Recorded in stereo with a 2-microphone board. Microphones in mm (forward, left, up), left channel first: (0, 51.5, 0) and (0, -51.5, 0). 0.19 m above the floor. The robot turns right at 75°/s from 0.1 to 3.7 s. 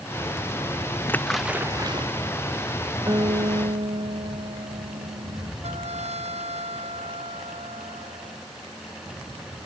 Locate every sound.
1.1 s a splash: 20° left (ahead or behind); by 2.1 s 55° right (ahead or behind)
3.1 s a guitar: 145° right; by 5.5 s 95° right
5.6 s a trumpet: 75° right (ahead or behind)